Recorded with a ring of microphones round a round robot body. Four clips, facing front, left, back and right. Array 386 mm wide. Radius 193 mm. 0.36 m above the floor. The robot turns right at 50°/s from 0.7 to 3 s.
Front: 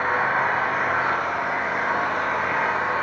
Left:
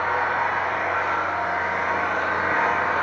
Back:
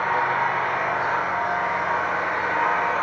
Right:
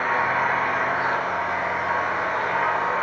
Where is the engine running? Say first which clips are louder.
Right 1 dB, even; 30° right, 6.5 m; by 3.0 s 85° left, 6.5 m.